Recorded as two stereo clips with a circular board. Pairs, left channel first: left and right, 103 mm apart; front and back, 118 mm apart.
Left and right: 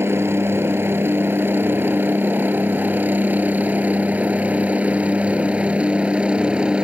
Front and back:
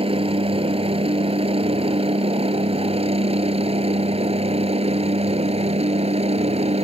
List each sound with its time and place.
0.0 s a helicopter: 155° right; by 6.8 s 170° right